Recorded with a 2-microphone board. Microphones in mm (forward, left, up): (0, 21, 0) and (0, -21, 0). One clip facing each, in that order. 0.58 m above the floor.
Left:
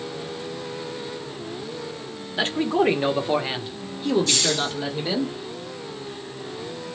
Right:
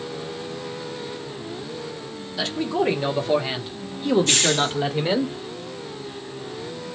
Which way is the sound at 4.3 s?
45° right (ahead or behind).